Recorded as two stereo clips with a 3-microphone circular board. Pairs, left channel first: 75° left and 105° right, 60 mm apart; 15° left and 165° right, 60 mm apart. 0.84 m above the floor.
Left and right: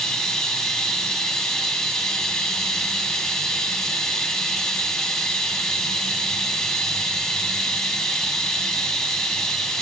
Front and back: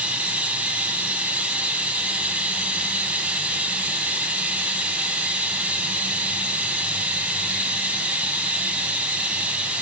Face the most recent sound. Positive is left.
turn(degrees=150)